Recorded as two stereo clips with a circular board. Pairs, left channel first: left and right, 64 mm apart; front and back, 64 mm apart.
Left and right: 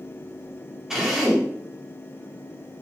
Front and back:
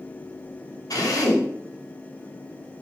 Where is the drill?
10° right, 3 m.